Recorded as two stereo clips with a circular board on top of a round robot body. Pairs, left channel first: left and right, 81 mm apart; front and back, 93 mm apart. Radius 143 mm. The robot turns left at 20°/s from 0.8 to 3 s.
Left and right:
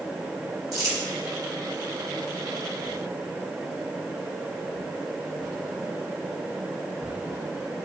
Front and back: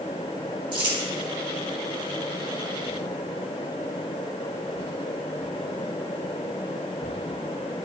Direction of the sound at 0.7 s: 140° right.